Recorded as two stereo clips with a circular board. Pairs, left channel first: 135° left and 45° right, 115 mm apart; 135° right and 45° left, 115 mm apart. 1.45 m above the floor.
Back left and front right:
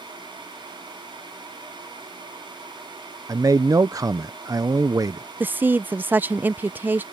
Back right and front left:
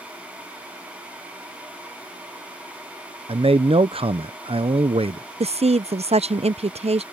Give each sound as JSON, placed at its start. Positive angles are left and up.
{"t": 3.3, "sound": "a man speaking", "azimuth_deg": 15}
{"t": 5.4, "sound": "a woman speaking", "azimuth_deg": 25}